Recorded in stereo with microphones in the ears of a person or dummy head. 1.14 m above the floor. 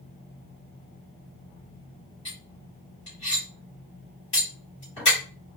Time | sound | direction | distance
2.2 | cutlery clinking | 25° left (ahead or behind) | 2.5 m